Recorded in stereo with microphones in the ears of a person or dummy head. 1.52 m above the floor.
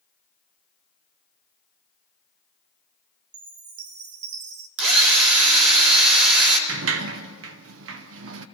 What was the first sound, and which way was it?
A chime, 40° right (ahead or behind).